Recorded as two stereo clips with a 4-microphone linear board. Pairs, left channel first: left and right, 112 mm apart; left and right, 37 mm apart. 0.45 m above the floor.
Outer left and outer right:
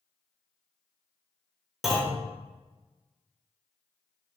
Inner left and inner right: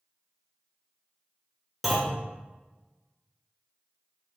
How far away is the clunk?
About 1.2 m.